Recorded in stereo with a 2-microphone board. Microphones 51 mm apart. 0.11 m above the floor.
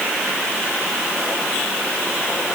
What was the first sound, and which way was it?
Only background noise.